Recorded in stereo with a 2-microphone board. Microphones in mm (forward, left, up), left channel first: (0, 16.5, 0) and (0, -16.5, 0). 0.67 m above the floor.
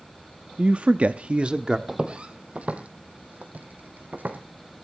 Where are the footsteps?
30° right (ahead or behind), 1.6 m; by 4.4 s 65° right (ahead or behind), 2.5 m.